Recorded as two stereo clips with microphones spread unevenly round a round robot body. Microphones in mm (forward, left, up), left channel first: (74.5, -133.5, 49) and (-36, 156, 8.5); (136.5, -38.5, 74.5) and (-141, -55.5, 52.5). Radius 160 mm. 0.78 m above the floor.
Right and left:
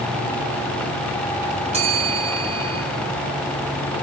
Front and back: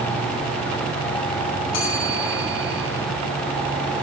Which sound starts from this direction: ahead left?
A bell, at 1.7 s.